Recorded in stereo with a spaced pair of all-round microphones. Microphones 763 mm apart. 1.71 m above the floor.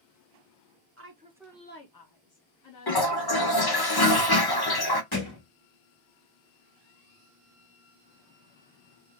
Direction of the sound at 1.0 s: 20° right (ahead or behind).